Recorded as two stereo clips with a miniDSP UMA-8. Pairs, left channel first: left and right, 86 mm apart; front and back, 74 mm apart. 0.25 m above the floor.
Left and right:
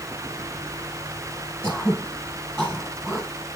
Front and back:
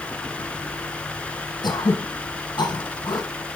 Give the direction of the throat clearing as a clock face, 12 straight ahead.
12 o'clock.